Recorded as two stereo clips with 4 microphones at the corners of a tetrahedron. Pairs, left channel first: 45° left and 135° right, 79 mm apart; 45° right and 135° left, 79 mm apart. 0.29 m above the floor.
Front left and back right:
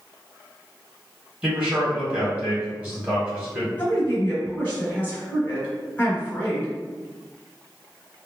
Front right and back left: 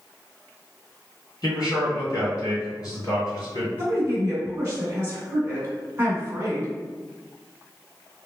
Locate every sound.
1.4 s a man speaking: 65° right, 1.9 m
3.8 s a woman speaking: 100° left, 1.5 m